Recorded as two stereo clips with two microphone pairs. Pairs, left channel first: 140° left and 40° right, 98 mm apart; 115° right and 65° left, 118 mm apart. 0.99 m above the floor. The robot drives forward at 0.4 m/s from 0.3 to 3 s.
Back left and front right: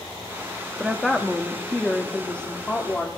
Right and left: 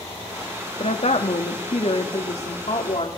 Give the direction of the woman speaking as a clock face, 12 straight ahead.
4 o'clock.